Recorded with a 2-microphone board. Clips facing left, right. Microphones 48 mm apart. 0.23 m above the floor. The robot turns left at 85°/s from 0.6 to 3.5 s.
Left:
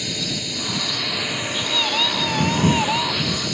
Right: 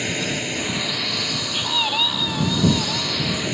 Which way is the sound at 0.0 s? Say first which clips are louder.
Right 3 dB; 140° right.